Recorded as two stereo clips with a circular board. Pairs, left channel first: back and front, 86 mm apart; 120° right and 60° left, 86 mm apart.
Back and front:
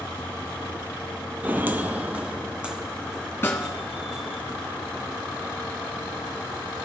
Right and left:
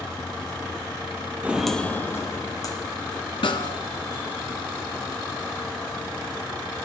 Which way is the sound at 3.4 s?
120° right.